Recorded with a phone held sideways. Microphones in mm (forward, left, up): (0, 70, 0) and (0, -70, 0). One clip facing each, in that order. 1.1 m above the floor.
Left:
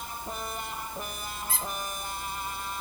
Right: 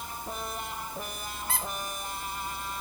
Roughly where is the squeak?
Right.